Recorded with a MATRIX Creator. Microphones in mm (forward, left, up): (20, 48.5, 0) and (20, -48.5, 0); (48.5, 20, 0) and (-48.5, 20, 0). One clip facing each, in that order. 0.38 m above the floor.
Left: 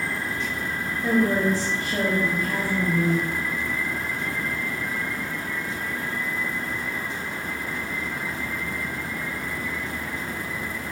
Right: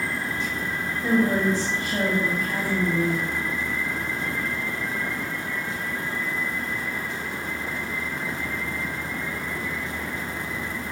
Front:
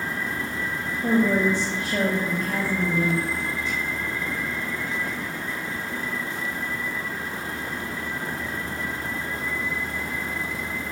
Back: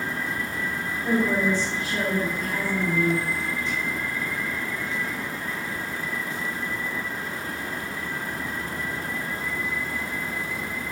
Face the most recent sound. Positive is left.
turn(degrees=5)